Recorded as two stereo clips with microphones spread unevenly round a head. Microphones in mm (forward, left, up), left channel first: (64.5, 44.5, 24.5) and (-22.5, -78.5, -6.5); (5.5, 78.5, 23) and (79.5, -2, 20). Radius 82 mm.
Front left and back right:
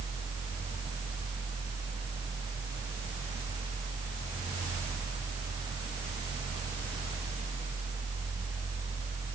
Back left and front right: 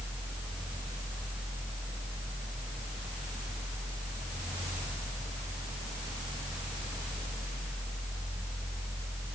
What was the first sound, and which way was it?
Only background noise.